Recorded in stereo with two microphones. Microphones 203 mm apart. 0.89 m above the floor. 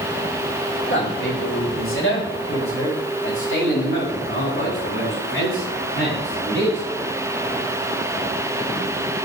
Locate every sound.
0.9 s a man speaking: 70° left (ahead or behind), 1.8 m; by 6.8 s 85° left, 7 m